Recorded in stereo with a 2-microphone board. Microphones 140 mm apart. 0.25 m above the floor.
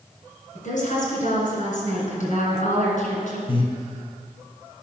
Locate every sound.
0.6 s a woman speaking: 65° left (ahead or behind), 3 m
3.5 s breathing: 40° left (ahead or behind), 1.5 m